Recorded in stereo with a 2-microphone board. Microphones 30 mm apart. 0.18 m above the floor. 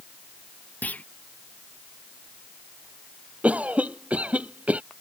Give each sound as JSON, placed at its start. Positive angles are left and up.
{"t": 0.8, "sound": "a clunk", "side_deg": 75}
{"t": 3.4, "sound": "a cough", "side_deg": -55}